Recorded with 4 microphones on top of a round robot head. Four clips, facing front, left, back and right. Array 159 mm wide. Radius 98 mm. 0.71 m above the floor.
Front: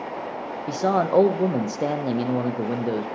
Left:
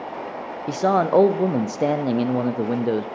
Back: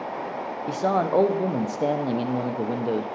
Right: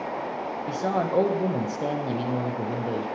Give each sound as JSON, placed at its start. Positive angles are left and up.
{"t": 0.7, "sound": "a man speaking", "azimuth_deg": 80, "distance_m": 0.5}